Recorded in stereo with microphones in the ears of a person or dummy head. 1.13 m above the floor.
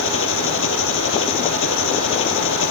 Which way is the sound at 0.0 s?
80° left.